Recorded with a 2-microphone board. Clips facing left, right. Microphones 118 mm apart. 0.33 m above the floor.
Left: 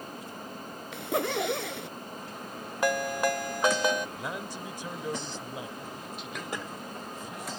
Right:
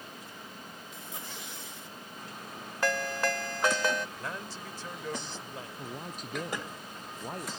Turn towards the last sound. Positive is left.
turn(degrees=-40)  # may be behind; listen again after turning